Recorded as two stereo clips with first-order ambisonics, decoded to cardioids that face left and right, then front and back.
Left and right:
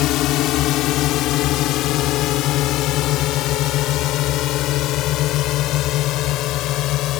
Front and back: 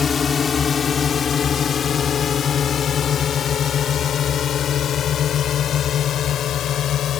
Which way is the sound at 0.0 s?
65° left.